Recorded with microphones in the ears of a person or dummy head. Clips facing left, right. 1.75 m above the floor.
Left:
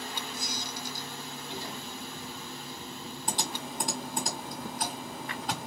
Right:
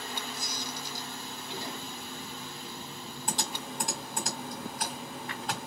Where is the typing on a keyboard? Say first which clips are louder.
Left 1 dB; centre (ahead or behind), 2 m.